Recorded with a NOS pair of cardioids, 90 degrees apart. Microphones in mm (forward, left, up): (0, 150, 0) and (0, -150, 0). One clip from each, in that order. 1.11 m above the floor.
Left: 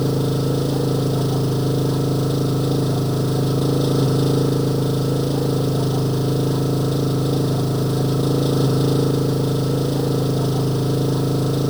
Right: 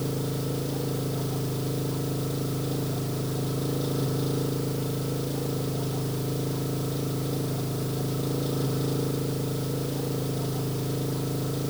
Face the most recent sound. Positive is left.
turn(degrees=70)